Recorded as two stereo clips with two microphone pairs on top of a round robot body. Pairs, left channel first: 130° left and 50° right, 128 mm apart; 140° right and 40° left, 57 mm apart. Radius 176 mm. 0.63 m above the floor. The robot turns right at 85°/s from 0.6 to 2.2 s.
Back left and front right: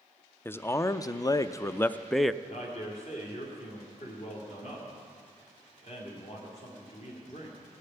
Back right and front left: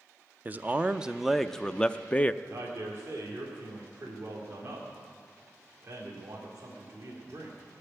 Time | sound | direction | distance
0.5 | a man speaking | 80° left | 0.5 m
2.4 | a man speaking | 100° left | 2 m